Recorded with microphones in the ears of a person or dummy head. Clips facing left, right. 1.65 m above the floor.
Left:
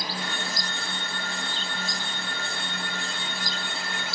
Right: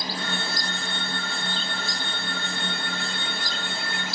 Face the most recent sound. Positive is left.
turn(degrees=-70)  # may be behind; listen again after turning